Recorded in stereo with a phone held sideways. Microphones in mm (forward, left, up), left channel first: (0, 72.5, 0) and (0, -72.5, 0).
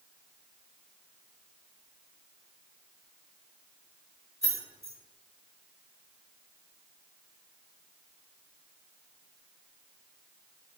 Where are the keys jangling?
20° right (ahead or behind), 1.3 m.